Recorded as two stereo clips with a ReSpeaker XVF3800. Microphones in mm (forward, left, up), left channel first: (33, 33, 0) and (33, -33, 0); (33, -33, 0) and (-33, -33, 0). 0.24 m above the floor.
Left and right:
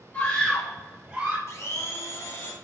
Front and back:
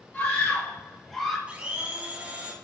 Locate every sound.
0.1 s a scream: 45° left, 1.1 m; by 1.4 s 95° right, 1.0 m
1.5 s a blender: 115° left, 0.9 m